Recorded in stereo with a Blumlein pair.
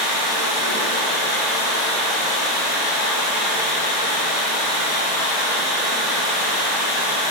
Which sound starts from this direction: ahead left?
Running water, at 0.0 s.